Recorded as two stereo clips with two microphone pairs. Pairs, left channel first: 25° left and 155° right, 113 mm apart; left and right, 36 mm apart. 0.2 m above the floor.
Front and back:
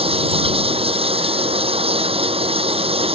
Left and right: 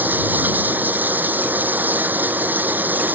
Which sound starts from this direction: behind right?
Running water, at 0.0 s.